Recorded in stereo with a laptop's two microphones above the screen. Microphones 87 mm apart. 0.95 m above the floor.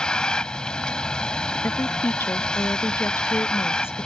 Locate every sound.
0.0 s a vehicle: 10° left (ahead or behind)
1.6 s a woman speaking: 25° left (ahead or behind)